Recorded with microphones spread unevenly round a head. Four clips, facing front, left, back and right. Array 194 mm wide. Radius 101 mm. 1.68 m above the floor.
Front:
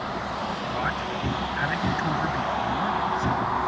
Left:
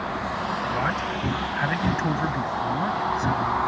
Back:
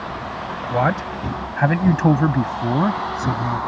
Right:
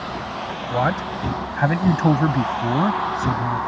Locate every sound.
0.7 s a man speaking: 150° right; by 3.6 s 145° right